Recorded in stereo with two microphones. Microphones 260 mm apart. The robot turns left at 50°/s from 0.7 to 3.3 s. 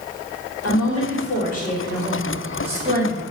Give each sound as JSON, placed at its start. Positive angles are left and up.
{"t": 0.6, "sound": "a woman speaking", "azimuth_deg": 75, "distance_m": 1.9}